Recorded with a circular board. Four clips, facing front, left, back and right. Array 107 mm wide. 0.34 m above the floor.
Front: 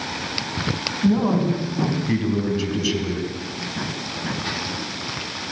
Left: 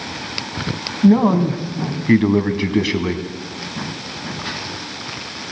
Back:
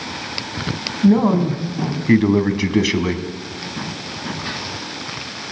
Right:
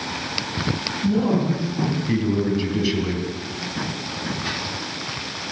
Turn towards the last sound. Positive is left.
turn(degrees=155)